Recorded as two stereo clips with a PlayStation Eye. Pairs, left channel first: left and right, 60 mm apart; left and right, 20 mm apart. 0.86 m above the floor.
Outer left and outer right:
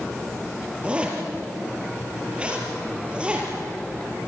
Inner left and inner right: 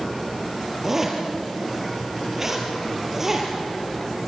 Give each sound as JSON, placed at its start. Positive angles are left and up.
{"t": 0.8, "sound": "a zipper", "side_deg": -20, "distance_m": 5.0}